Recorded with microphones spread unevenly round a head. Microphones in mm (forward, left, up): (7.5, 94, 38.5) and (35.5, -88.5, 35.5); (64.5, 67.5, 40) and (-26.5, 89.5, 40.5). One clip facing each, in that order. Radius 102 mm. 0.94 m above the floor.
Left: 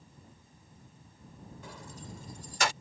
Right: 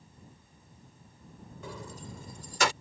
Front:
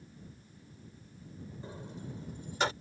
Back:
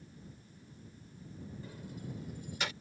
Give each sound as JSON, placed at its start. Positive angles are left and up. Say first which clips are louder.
{"t": 1.6, "sound": "keys jangling", "louder": "right 6 dB, front 3 dB", "azimuth_deg": -90}